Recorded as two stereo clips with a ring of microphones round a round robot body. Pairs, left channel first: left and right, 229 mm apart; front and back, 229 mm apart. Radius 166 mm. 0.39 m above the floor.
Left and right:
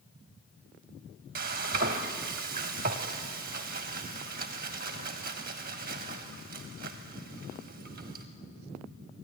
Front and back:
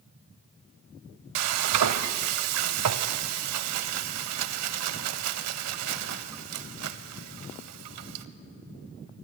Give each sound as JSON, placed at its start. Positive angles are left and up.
{"t": 1.4, "sound": "frying", "azimuth_deg": -155, "distance_m": 0.6}